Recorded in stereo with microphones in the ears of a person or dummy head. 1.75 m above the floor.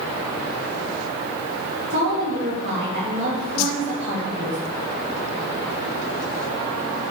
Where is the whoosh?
85° left, 0.6 m.